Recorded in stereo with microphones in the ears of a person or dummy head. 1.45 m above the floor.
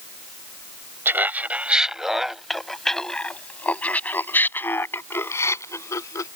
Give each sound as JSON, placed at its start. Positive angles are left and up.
{"t": 1.1, "sound": "laughter", "side_deg": -10}